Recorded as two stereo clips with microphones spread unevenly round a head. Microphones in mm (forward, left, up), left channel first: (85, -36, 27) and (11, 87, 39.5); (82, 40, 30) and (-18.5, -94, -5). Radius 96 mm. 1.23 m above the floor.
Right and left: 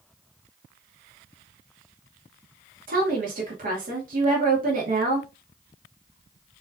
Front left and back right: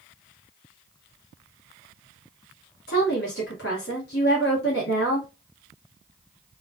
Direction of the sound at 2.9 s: 95° left.